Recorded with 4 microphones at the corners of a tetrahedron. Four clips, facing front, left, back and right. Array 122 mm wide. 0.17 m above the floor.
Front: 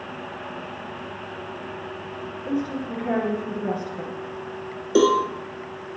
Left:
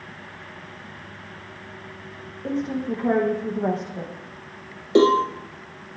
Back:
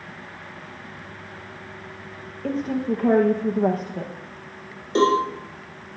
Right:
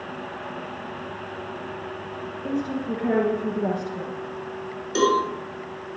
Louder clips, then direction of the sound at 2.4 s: Left 1 dB, back 3 dB; straight behind.